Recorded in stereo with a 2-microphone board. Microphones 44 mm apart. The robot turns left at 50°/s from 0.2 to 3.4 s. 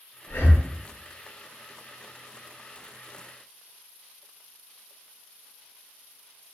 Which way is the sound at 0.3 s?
55° left (ahead or behind).